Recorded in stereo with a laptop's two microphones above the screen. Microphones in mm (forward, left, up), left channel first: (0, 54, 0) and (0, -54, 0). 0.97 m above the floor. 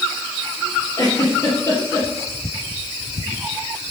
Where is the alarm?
I don't hear an alarm.